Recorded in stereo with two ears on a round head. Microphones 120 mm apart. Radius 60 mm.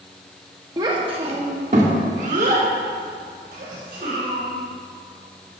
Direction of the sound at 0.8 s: 30° right (ahead or behind).